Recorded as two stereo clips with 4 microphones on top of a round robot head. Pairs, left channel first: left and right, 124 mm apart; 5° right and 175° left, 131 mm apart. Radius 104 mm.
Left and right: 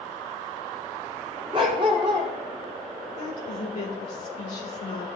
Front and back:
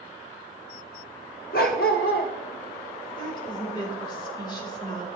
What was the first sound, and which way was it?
A dog barking, 25° right.